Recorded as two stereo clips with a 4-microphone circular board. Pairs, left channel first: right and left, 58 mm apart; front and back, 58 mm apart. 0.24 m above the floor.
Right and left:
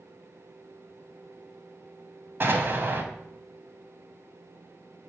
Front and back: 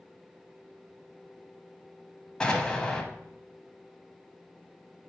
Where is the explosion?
65° left, 0.6 m.